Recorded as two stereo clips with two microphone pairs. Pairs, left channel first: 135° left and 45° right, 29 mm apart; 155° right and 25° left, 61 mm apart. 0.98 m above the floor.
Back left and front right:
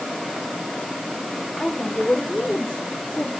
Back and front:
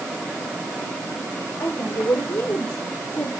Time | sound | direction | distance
1.6 | a woman speaking | 165° right | 3.5 m